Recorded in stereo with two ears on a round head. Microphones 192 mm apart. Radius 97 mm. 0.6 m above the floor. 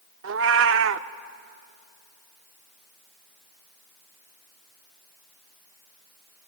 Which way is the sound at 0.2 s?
65° right (ahead or behind).